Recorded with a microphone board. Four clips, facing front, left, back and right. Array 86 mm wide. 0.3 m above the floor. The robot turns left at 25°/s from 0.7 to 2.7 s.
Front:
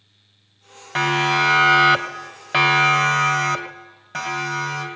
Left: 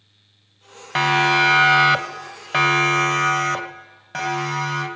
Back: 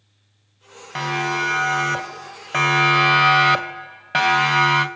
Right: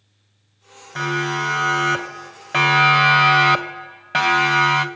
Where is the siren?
75° left, 3.5 m; by 4.8 s 145° right, 3.5 m.